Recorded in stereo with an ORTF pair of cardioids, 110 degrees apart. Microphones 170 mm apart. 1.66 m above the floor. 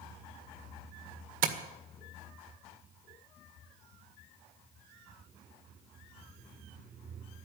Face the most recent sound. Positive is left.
turn(degrees=-55)